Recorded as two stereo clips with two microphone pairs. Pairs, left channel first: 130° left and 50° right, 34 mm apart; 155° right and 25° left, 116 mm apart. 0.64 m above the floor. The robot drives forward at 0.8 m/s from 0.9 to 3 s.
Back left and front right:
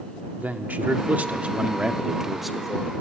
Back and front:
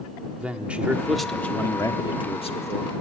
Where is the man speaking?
55° right, 1.0 m; by 2.9 s 145° right, 1.4 m.